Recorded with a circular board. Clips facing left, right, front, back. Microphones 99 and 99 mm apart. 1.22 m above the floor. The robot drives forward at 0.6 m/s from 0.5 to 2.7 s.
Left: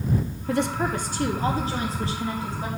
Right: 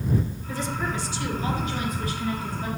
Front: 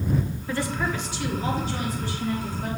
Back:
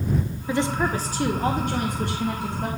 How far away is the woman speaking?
About 0.7 m.